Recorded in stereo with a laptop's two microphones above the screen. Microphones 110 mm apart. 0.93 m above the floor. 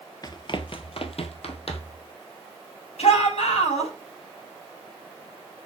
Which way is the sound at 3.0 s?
70° left (ahead or behind).